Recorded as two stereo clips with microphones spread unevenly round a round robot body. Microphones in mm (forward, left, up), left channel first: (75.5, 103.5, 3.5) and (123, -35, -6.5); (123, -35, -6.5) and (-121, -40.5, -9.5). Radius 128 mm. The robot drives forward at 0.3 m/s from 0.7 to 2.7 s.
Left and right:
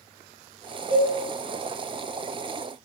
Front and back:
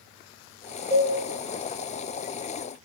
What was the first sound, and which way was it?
A cowbell, 160° left.